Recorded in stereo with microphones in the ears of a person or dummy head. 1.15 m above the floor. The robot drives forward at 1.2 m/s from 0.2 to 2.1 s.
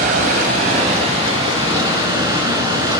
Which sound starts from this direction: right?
Running water, at 0.0 s.